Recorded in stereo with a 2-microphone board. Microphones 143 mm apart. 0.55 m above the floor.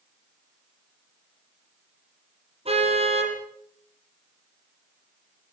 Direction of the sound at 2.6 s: 45° right (ahead or behind).